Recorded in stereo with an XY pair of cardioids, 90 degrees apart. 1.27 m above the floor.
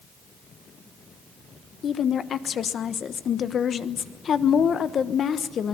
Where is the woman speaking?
60° left, 1.1 m.